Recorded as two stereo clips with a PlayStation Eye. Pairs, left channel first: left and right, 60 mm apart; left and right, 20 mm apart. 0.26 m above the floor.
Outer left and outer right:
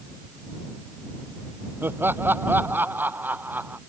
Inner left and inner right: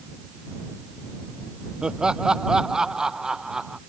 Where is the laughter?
40° right (ahead or behind); by 3.8 s 30° right (ahead or behind).